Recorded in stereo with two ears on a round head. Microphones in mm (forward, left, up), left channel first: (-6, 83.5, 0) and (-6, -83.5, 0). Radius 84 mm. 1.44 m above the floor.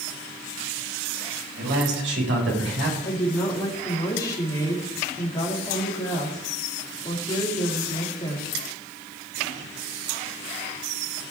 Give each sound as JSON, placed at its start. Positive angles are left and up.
{"t": 1.6, "sound": "a man speaking", "side_deg": -70, "distance_m": 6.5}
{"t": 3.0, "sound": "a woman speaking", "side_deg": 20, "distance_m": 4.0}